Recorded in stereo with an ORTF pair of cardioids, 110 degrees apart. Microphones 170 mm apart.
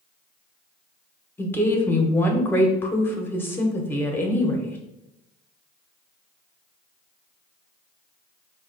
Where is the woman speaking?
15° left, 0.9 m.